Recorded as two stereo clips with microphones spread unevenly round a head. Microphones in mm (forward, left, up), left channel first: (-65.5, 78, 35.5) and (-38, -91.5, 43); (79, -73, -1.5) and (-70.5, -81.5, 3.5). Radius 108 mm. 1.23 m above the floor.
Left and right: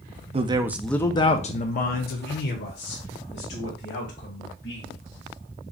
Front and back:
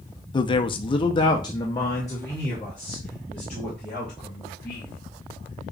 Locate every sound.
0.3 s a man speaking: 40° right, 0.6 m; by 5.0 s 90° left, 2.5 m